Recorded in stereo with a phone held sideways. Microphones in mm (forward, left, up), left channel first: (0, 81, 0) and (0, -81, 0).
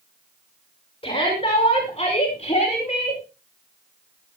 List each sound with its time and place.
1.0 s a shout: 35° left (ahead or behind), 5.5 m; by 3.2 s 50° left (ahead or behind), 4.5 m